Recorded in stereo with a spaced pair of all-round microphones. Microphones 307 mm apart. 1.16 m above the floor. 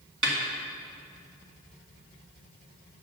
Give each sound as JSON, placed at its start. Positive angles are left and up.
{"t": 0.2, "sound": "a snare drum", "side_deg": -80, "distance_m": 2.0}